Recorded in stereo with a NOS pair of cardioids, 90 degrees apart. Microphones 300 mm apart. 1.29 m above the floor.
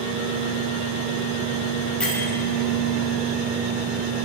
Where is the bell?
5° left, 1.6 m.